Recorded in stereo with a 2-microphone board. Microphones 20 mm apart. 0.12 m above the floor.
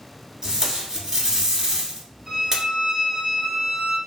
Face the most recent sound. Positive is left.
turn(degrees=-35)  # may be behind; listen again after turning